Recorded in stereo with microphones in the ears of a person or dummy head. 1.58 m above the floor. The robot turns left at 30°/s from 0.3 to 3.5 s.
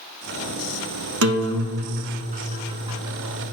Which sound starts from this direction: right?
A guitar, at 1.2 s.